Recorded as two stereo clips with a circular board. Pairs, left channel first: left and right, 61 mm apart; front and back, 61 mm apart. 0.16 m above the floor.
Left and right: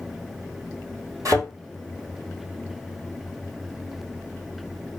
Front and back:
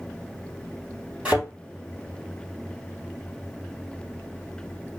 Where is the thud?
110° right, 2.5 m.